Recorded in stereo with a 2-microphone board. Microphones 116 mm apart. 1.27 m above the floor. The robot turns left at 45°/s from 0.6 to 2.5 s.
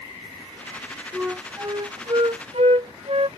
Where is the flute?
5° right; by 3.3 s 65° right.